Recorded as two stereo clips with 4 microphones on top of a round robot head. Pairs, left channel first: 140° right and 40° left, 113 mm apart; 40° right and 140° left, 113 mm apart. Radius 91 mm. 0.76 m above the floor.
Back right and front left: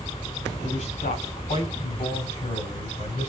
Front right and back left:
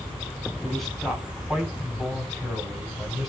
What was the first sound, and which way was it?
A man speaking, 130° right.